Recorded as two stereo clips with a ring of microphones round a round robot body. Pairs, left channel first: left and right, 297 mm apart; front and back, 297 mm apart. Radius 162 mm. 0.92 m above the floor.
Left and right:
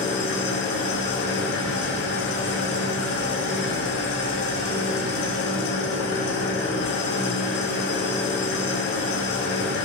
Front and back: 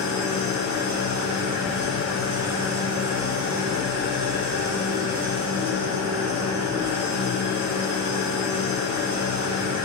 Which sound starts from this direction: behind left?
An engine running, at 0.0 s.